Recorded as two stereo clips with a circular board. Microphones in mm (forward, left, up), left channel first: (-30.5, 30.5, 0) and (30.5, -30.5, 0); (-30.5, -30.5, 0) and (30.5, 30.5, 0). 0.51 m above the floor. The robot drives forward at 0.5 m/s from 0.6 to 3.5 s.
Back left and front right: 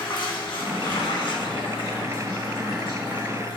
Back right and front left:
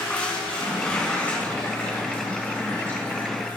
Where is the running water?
145° left, 3 m; by 3.6 s 160° left, 4.5 m.